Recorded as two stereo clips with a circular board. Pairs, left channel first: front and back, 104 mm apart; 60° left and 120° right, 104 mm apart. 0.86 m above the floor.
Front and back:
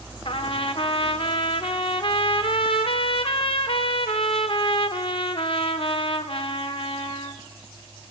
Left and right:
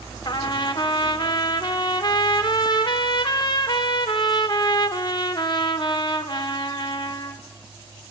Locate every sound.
0.2 s a trumpet: 20° left, 0.7 m